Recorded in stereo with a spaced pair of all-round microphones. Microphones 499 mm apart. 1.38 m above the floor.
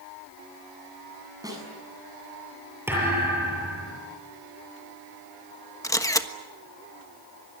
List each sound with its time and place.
1.4 s a snare drum: 5° right (ahead or behind), 7.5 m
2.9 s a thud: 5° right (ahead or behind), 8 m
5.8 s a camera shutter: 5° left (ahead or behind), 1.2 m